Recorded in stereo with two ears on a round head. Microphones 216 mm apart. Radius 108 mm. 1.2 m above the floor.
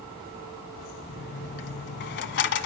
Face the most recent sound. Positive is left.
turn(degrees=50)  # may be behind; listen again after turning